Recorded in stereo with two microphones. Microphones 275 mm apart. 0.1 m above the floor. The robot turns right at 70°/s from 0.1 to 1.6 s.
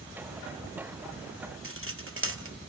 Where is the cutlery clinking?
50° right (ahead or behind), 1.5 m.